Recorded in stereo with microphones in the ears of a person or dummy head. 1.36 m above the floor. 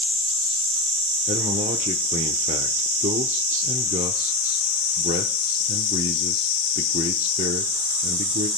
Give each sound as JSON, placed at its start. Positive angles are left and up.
{"t": 1.3, "sound": "a man speaking", "side_deg": -35, "distance_m": 0.9}